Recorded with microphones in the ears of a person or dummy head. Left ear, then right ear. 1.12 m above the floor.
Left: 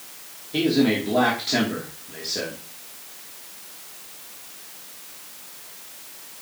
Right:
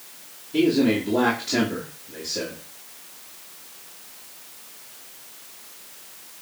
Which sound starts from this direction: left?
A man speaking, at 0.5 s.